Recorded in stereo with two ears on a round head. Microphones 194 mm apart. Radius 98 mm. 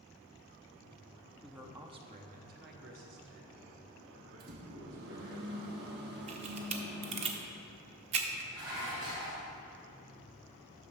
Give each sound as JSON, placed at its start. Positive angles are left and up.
{"t": 1.4, "sound": "a man speaking", "side_deg": 0, "distance_m": 0.6}
{"t": 4.4, "sound": "a microwave", "side_deg": -50, "distance_m": 1.1}
{"t": 6.3, "sound": "a camera shutter", "side_deg": -30, "distance_m": 0.6}
{"t": 8.5, "sound": "dishes clattering", "side_deg": -20, "distance_m": 2.5}